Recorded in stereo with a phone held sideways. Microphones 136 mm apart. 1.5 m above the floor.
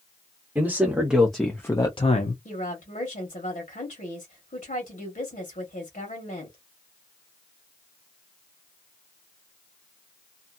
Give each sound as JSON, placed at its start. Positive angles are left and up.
{"t": 0.6, "sound": "a man speaking", "side_deg": -15, "distance_m": 1.2}
{"t": 2.5, "sound": "a woman speaking", "side_deg": 80, "distance_m": 1.2}